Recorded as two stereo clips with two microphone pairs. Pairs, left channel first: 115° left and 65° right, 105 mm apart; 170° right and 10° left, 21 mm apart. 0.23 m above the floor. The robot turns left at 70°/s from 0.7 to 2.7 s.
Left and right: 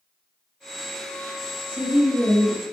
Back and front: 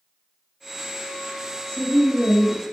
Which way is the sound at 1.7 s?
105° right.